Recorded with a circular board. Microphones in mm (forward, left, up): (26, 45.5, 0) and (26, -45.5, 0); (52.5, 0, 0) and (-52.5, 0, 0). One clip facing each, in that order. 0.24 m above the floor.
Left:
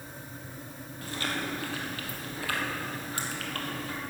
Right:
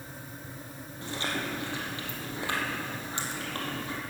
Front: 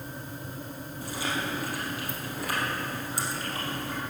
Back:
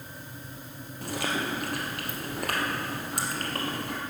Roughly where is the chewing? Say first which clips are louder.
Even, back 2 dB; behind right.